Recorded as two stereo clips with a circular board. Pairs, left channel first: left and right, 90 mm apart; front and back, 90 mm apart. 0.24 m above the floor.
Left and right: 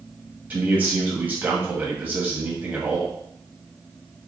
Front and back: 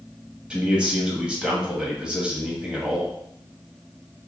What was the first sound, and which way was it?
A man speaking, 120° right.